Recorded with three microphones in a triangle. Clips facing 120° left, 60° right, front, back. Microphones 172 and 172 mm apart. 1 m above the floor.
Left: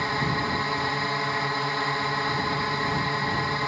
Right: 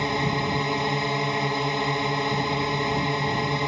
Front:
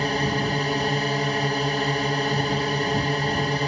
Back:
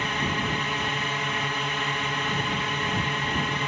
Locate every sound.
0.0 s a drone: 5° right